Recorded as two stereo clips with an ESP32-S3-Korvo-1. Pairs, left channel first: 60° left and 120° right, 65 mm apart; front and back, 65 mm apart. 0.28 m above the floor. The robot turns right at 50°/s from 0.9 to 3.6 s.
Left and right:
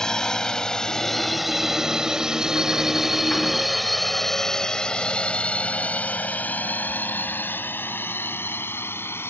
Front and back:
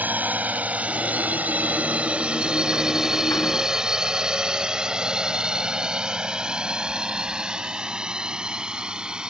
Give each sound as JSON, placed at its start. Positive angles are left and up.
{"t": 0.0, "sound": "a drone", "azimuth_deg": 135}